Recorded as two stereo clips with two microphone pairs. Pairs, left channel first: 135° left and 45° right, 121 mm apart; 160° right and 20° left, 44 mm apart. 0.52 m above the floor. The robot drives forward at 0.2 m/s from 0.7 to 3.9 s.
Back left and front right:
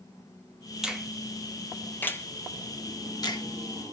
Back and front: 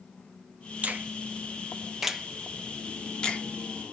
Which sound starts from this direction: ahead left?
A finger snap, at 0.8 s.